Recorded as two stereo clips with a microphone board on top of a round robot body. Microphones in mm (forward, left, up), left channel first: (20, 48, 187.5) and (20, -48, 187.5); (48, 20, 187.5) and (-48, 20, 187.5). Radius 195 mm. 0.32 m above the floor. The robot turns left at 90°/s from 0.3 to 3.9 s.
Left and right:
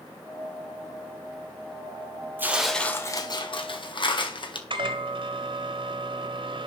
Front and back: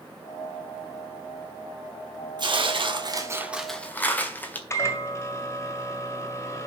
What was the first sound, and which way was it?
Tearing paper, 155° right.